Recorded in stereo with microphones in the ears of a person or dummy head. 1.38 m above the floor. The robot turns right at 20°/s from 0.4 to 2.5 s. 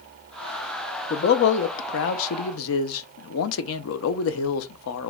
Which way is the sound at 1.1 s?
50° left (ahead or behind).